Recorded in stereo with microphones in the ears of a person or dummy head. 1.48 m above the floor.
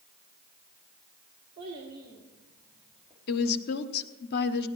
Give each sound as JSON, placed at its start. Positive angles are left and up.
{"t": 1.6, "sound": "a child speaking", "side_deg": -30, "distance_m": 1.9}
{"t": 3.3, "sound": "a woman speaking", "side_deg": 50, "distance_m": 0.9}